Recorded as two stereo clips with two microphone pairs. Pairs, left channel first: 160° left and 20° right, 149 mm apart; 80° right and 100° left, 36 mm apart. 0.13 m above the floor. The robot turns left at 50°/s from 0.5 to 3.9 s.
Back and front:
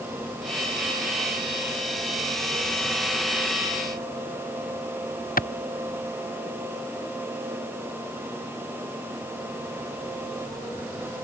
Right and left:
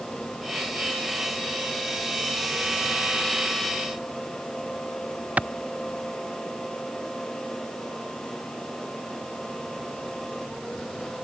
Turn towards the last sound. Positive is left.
turn(degrees=145)